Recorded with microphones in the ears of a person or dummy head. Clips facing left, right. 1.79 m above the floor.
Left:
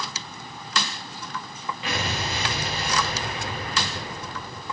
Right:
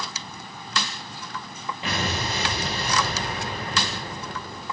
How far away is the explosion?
About 1.7 m.